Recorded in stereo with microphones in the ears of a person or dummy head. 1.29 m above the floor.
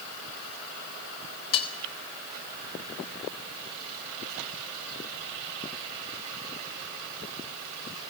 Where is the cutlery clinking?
30° left (ahead or behind), 0.7 m.